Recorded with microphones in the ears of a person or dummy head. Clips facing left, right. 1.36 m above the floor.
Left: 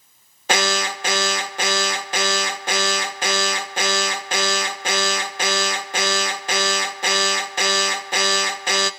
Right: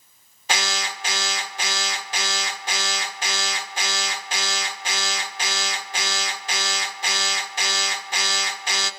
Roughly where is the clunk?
I don't hear a clunk.